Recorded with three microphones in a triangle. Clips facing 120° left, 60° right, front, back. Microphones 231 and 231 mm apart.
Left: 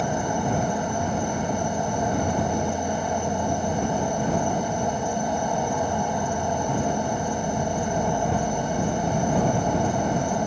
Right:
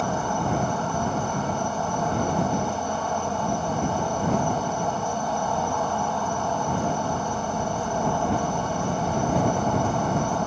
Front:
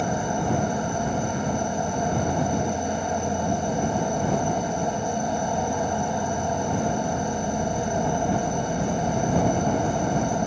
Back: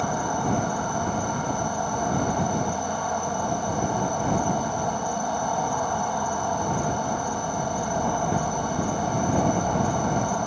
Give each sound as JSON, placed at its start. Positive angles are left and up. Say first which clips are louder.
{"t": 0.0, "sound": "an insect", "louder": "left 1 dB, front 1 dB", "azimuth_deg": 55}